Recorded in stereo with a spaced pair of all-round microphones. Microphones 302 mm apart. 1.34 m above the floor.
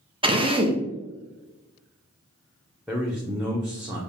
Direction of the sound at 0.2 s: 15° right (ahead or behind).